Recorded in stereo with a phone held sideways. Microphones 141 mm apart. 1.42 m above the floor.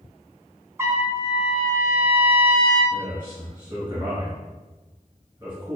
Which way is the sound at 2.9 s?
20° right (ahead or behind).